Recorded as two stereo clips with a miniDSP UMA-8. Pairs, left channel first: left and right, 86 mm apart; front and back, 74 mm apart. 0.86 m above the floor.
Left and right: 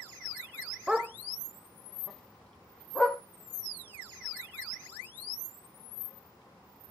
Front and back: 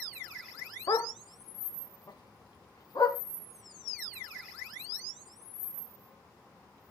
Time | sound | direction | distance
0.9 | a dog barking | 10° right | 1.1 m